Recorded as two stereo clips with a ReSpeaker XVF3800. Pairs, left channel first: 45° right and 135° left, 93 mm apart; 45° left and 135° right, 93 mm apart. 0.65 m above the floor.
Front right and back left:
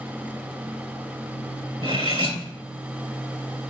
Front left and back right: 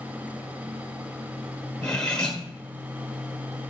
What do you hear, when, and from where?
1.8 s cutlery clinking: 125° left, 1.5 m